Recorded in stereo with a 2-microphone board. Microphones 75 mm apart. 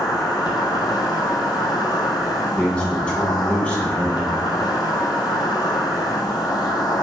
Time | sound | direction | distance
0.0 | an insect | 70° left (ahead or behind) | 0.9 m
2.6 | a man speaking | 15° left (ahead or behind) | 1.3 m